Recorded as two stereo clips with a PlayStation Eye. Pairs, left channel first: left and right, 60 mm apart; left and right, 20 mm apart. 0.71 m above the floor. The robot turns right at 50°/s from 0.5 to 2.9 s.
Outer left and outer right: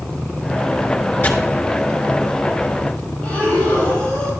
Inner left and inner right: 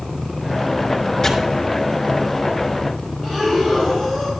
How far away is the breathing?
About 4 m.